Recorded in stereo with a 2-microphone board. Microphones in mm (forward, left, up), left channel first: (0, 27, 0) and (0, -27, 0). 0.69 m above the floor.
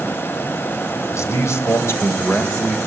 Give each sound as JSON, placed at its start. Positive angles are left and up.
{"t": 1.1, "sound": "a man speaking", "side_deg": 60, "distance_m": 4.0}